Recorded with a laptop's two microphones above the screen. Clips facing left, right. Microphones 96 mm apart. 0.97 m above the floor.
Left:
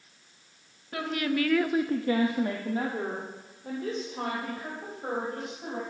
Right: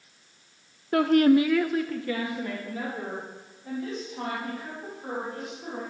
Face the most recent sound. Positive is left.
turn(degrees=50)  # may be behind; listen again after turning